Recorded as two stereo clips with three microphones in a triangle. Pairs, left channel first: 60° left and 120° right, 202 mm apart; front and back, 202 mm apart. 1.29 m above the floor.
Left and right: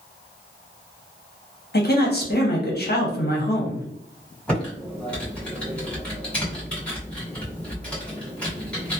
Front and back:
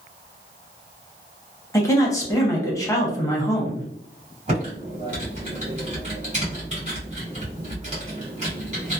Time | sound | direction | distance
1.7 | a man speaking | 70° left | 0.9 m
4.5 | typing on a keyboard | 145° left | 1.5 m